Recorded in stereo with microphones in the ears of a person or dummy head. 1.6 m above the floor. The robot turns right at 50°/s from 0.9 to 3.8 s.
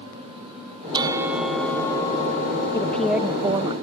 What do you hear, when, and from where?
0.9 s a bell: 30° right; by 3.7 s 110° left
2.7 s a woman speaking: 165° left; by 3.7 s 145° right